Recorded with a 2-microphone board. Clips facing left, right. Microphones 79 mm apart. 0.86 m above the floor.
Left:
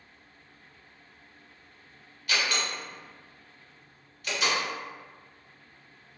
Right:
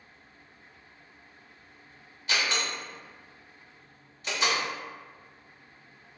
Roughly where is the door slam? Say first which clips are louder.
Even; right.